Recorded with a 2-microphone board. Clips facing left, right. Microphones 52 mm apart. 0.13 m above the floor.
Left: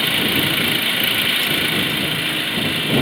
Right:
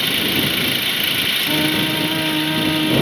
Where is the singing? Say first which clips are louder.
Right 1 dB; 50° right (ahead or behind).